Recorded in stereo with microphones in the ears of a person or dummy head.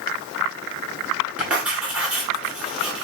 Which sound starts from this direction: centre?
Writing, at 1.4 s.